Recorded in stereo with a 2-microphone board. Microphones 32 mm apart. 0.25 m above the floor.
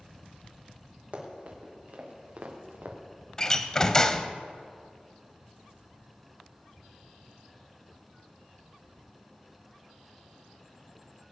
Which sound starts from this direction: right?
Running footsteps, at 1.1 s.